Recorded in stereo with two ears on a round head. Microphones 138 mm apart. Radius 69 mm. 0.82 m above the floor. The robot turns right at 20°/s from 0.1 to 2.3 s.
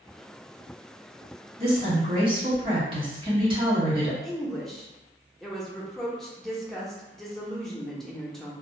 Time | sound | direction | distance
1.6 | a woman speaking | 40° right (ahead or behind) | 1.3 m
4.2 | a woman speaking | 5° left (ahead or behind) | 0.7 m